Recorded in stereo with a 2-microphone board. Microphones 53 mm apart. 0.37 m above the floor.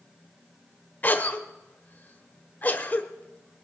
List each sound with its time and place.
1.0 s a cough: 35° left (ahead or behind), 1.0 m